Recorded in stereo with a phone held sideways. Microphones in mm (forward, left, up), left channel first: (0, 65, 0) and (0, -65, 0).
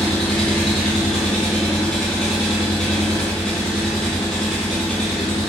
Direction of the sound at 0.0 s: 5° left (ahead or behind).